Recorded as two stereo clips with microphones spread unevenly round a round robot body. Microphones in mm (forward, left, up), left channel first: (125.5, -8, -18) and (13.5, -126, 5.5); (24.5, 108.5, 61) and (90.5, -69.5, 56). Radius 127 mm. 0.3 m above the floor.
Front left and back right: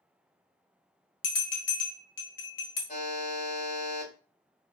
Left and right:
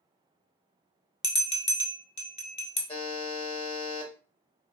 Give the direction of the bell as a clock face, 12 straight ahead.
10 o'clock.